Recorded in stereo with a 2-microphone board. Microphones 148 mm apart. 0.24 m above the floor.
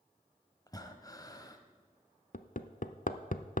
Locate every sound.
0.7 s breathing: 25° left (ahead or behind), 0.9 m
2.3 s hammering: 60° left (ahead or behind), 0.5 m